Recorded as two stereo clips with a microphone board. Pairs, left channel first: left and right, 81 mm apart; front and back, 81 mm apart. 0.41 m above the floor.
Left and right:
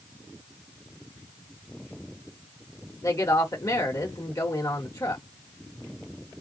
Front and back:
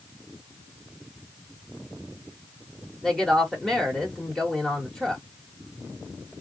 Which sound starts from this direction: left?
A woman speaking, at 3.0 s.